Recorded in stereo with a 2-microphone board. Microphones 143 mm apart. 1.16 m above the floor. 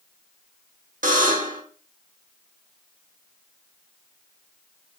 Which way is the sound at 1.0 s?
70° right (ahead or behind).